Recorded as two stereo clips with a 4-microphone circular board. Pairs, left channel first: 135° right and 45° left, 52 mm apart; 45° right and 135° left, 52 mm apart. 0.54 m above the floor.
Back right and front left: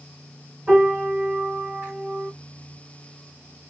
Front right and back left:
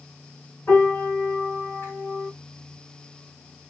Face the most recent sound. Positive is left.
turn(degrees=-10)